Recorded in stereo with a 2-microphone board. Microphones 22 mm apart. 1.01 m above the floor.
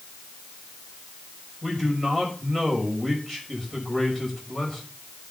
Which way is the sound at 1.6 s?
20° left (ahead or behind).